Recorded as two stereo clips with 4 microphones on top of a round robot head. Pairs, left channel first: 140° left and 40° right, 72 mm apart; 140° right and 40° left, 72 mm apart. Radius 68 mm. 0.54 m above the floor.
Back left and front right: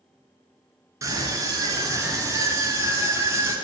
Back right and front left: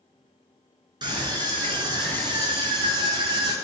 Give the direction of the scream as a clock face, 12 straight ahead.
12 o'clock.